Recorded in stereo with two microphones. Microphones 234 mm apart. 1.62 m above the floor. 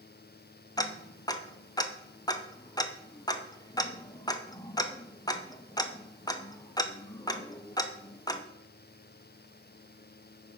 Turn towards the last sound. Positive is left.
turn(degrees=15)  # may be behind; listen again after turning